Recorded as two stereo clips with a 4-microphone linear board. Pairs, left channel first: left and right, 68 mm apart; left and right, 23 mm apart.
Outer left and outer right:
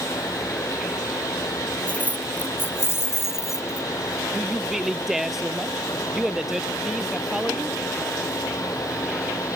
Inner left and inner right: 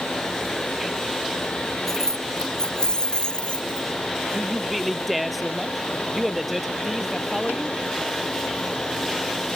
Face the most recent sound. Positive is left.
turn(degrees=-5)  # may be behind; listen again after turning